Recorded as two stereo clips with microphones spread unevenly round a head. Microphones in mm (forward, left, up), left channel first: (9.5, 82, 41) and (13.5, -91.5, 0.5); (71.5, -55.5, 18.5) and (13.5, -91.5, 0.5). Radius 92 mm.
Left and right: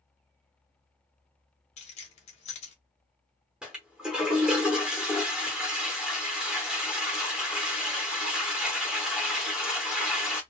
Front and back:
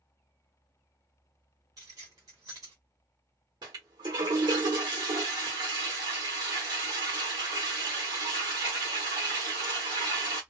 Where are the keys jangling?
150° left, 0.7 m.